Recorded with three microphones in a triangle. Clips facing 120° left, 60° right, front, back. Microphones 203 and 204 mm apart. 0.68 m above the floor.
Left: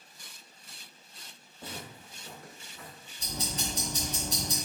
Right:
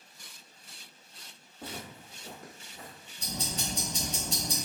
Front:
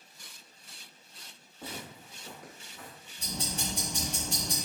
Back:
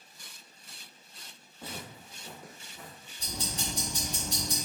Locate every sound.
1.6 s footsteps: 75° right, 1.3 m; by 3.0 s 115° right, 1.3 m
3.2 s ticking: 35° right, 1.3 m